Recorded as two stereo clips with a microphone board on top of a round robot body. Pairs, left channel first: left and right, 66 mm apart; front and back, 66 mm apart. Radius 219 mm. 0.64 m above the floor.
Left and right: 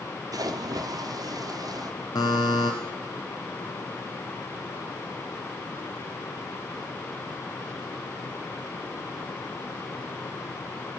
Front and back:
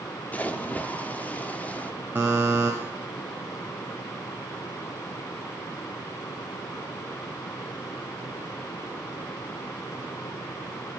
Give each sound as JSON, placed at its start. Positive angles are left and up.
{"t": 0.3, "sound": "a splash", "azimuth_deg": -65, "distance_m": 1.1}
{"t": 2.1, "sound": "a buzzer", "azimuth_deg": 115, "distance_m": 0.5}